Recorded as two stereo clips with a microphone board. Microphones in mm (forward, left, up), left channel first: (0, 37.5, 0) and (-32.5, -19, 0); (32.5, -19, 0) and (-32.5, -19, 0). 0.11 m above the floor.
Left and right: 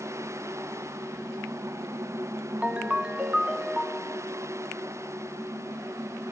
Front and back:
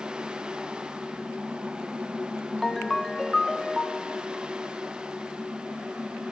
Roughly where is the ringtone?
Right.